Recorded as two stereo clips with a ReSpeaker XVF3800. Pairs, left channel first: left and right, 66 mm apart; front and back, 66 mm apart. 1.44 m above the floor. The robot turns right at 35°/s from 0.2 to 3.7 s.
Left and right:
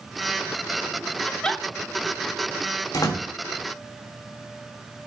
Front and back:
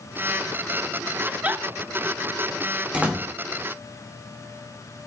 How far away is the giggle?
About 0.6 m.